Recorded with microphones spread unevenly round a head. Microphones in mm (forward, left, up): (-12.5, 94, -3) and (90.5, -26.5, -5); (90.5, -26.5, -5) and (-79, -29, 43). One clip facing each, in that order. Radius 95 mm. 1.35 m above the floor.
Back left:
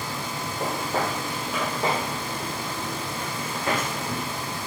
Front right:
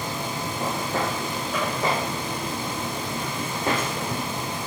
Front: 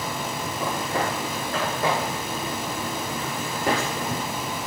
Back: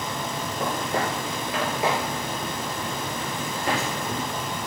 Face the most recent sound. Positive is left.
turn(degrees=-10)